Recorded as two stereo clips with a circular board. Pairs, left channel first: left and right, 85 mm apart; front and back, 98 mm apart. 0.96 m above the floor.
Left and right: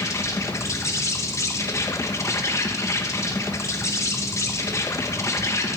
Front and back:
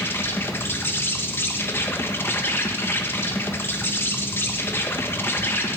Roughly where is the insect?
Ahead left.